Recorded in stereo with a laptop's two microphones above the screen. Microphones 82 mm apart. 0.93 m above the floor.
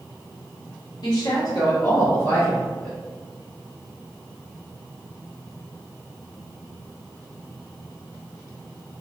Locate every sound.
1.0 s a woman speaking: 60° left (ahead or behind), 1.3 m; by 3.0 s 5° left (ahead or behind), 1.0 m